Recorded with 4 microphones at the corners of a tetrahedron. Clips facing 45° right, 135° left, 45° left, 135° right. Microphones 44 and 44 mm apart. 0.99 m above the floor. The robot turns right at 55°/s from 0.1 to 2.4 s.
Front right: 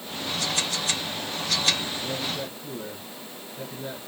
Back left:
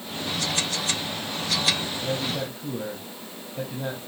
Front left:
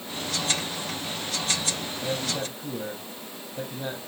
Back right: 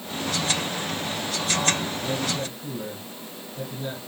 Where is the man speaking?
85° left, 5.5 m; by 4.0 s 105° left, 5.5 m.